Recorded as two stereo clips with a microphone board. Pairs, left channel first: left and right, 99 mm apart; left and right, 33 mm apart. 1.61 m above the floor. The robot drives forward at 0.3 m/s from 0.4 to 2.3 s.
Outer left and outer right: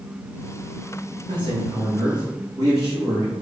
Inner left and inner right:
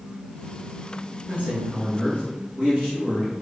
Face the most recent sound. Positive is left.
turn(degrees=-40)  # may be behind; listen again after turning